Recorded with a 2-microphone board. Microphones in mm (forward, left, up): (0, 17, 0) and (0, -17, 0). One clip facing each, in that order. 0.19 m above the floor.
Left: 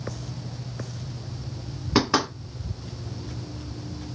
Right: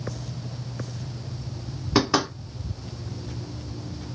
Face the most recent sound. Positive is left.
turn(degrees=5)  # may be behind; listen again after turning